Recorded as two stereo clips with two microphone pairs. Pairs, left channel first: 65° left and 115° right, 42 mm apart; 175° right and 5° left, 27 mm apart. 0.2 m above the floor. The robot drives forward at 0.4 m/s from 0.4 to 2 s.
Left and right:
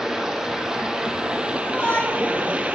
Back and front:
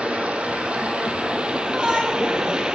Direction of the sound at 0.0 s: 35° right.